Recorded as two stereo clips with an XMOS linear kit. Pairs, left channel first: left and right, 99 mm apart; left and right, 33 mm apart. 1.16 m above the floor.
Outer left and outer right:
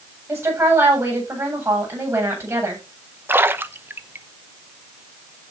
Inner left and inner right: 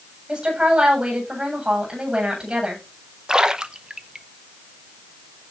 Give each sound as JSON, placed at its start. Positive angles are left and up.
{"t": 0.3, "sound": "a woman speaking", "side_deg": -30, "distance_m": 8.5}
{"t": 3.3, "sound": "a splash", "side_deg": -20, "distance_m": 0.8}